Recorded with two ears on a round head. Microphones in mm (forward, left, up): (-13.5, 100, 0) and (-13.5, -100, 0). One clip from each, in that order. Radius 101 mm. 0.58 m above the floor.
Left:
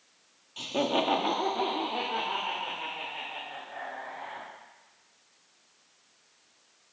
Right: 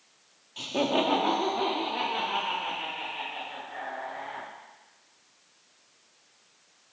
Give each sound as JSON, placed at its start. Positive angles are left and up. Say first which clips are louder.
{"t": 0.6, "sound": "laughter", "louder": "right 1 dB", "side_deg": 5, "distance_m": 0.8}